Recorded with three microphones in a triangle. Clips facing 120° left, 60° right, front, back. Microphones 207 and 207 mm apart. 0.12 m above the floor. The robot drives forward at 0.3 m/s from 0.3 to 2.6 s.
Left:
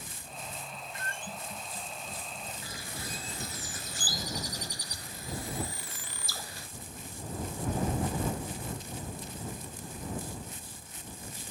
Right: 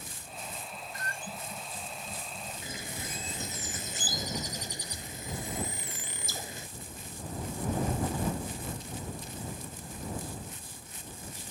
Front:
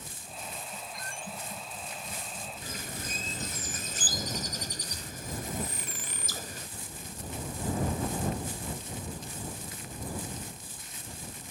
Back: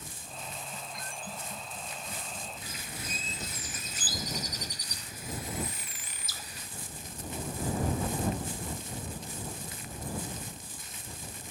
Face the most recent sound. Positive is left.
turn(degrees=5)